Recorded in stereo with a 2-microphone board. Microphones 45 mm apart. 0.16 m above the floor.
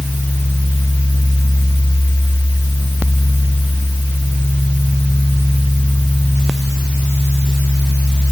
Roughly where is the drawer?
No drawer in this recording.